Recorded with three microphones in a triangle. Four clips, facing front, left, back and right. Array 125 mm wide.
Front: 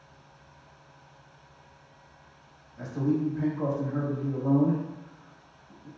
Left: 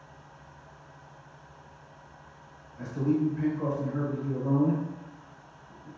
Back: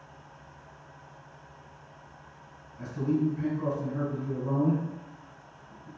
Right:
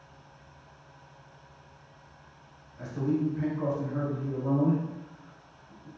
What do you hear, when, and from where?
2.8 s a man speaking: 5° left, 1.0 m